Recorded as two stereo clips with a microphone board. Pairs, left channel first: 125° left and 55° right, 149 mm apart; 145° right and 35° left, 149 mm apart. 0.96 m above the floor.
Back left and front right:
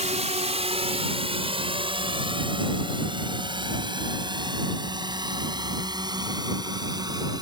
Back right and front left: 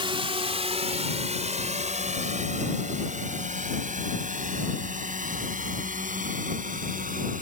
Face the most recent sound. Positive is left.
turn(degrees=10)